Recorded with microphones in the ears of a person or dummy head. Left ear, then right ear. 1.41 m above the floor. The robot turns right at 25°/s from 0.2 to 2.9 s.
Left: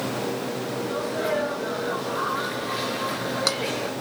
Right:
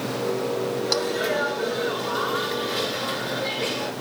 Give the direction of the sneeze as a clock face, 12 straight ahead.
3 o'clock.